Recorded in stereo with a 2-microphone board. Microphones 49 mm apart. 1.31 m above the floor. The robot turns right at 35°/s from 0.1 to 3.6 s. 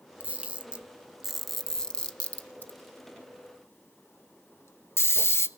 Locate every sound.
0.2 s a camera shutter: 35° right (ahead or behind), 0.6 m; by 5.5 s 55° left (ahead or behind), 0.6 m